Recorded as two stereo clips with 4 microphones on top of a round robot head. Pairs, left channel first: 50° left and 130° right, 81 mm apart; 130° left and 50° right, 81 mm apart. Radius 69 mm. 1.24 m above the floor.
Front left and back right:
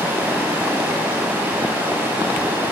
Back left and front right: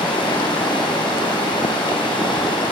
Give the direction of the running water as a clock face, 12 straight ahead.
7 o'clock.